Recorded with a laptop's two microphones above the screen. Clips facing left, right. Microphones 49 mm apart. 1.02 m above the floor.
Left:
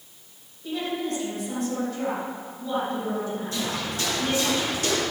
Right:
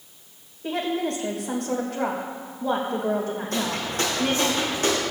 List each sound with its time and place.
0.6 s a woman speaking: 60° right (ahead or behind), 3.5 m
3.5 s footsteps: 50° right (ahead or behind), 3.5 m; by 5.0 s 35° right (ahead or behind), 3.5 m